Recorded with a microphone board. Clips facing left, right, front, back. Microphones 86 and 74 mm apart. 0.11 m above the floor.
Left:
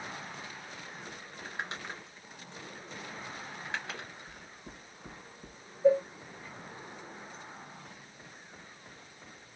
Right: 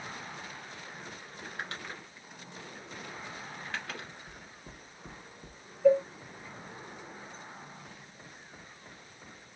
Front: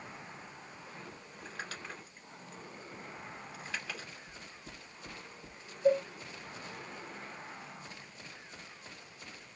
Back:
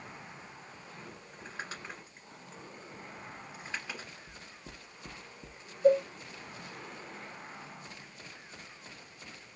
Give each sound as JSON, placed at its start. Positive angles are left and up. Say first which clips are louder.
{"t": 1.3, "sound": "crumpling", "louder": "left 1 dB, back 1 dB", "azimuth_deg": 135, "distance_m": 1.9}
{"t": 4.3, "sound": "knocking", "louder": "even, even", "azimuth_deg": -175, "distance_m": 1.6}
{"t": 5.8, "sound": "a cowbell", "louder": "right 1 dB, back 4 dB", "azimuth_deg": 140, "distance_m": 1.8}